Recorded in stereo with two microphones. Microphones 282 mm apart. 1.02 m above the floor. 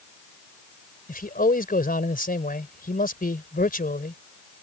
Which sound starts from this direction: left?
A man speaking, at 1.1 s.